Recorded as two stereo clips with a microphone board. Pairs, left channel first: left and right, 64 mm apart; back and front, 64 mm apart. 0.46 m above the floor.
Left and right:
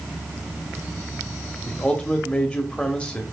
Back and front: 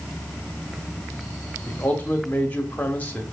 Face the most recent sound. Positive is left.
turn(degrees=145)